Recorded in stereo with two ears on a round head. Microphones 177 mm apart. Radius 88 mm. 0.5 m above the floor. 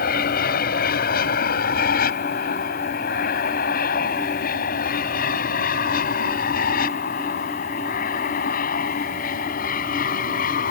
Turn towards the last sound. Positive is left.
turn(degrees=45)  # may be behind; listen again after turning